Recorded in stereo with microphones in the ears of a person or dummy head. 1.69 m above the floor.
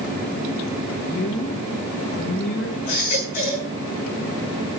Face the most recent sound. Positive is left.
turn(degrees=45)  # may be behind; listen again after turning